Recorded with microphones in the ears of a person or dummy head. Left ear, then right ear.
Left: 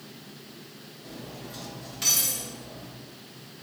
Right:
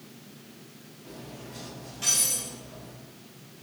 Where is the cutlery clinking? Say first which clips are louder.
Left 2 dB; 35° left (ahead or behind), 1.2 m.